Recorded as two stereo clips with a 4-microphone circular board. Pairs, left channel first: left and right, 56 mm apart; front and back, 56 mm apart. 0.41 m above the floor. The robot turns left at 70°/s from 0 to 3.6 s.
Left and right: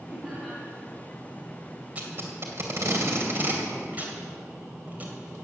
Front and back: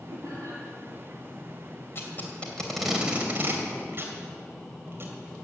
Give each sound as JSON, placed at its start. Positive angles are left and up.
{"t": 0.1, "sound": "laughter", "azimuth_deg": -160, "distance_m": 3.5}
{"t": 1.9, "sound": "tape being pulled", "azimuth_deg": -30, "distance_m": 2.5}